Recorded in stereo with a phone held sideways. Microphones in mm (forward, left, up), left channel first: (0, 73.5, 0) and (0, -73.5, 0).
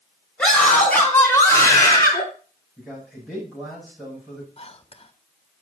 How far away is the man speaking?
About 8.5 m.